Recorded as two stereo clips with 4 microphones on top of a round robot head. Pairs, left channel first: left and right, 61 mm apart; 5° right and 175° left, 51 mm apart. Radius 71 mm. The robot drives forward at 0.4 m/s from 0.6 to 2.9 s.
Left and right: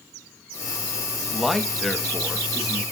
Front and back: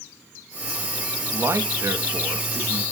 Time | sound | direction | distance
1.3 | a man speaking | straight behind | 1.4 m